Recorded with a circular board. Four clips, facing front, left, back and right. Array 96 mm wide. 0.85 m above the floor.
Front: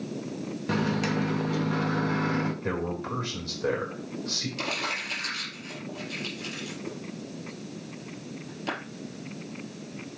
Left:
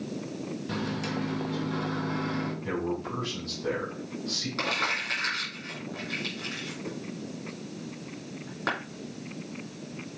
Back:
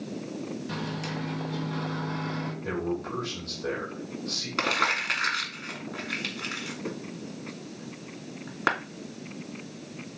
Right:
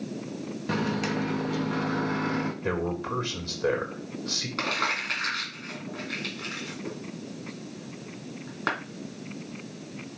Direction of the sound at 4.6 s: 165° right.